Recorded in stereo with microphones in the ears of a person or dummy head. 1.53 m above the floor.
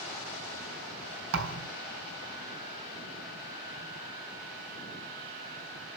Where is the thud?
75° right (ahead or behind), 4 m.